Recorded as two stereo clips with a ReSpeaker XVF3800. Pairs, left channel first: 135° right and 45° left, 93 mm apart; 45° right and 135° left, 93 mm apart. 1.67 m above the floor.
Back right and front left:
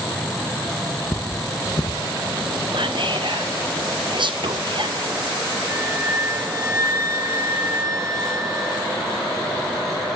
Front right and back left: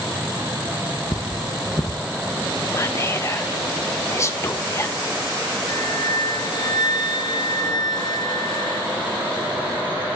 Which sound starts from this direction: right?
Cutlery clinking, at 1.1 s.